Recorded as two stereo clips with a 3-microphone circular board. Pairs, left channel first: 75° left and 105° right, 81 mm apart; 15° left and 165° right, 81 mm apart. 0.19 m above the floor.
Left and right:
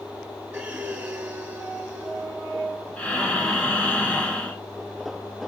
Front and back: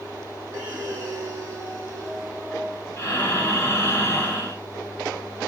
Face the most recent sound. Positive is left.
turn(degrees=25)